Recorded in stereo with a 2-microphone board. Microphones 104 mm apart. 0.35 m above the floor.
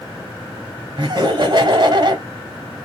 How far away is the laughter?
About 1.6 m.